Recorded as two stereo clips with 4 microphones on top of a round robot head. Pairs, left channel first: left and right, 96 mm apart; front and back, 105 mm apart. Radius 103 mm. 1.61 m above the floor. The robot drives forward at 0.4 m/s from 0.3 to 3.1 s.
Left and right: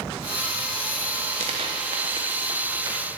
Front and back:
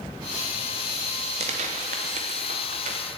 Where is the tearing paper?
135° right, 0.7 m; by 3.0 s 160° right, 1.2 m.